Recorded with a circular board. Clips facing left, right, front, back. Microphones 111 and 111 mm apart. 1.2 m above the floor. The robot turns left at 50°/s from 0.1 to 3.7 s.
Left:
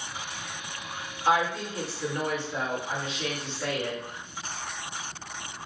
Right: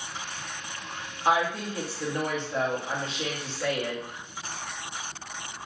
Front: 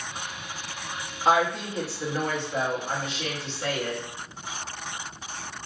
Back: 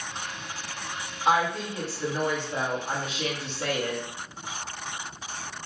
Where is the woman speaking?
55° right, 1.0 m; by 4.0 s 175° right, 1.0 m.